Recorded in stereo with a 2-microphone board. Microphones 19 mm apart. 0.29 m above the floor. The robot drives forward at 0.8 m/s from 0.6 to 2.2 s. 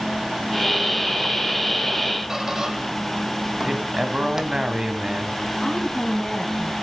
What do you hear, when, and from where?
2.3 s a squeak: 25° right (ahead or behind), 1.4 m
3.6 s a man speaking: 45° right (ahead or behind), 2 m
5.6 s a woman speaking: 30° left (ahead or behind), 2.5 m